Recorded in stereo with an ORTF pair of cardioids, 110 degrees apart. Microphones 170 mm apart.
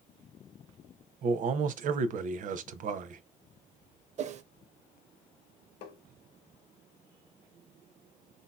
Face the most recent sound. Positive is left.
turn(degrees=70)